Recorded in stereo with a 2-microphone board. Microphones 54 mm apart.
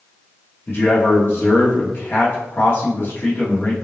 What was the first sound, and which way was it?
A man speaking, 40° left (ahead or behind).